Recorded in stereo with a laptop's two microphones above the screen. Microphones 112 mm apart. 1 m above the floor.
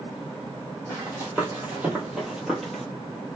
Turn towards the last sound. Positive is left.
turn(degrees=5)  # may be behind; listen again after turning